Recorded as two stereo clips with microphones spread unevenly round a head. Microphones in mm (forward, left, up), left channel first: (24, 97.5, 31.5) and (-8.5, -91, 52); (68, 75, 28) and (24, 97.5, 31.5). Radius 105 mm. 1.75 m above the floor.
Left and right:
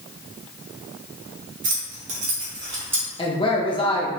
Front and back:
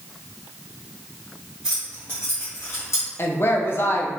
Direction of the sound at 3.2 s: 15° left.